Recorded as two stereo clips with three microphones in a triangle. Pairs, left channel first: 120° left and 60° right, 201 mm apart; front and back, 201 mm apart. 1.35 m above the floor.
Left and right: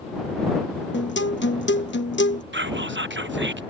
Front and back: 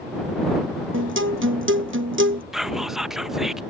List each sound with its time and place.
0.9 s a guitar: 155° left
2.5 s whispering: 90° right